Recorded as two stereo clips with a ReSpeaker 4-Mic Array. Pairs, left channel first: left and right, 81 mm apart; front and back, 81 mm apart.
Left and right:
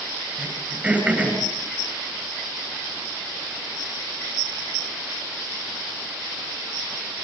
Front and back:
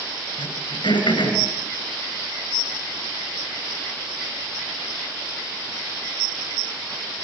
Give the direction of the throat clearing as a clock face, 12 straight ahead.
12 o'clock.